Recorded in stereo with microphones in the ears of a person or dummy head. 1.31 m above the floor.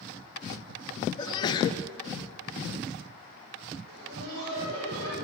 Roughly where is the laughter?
Right.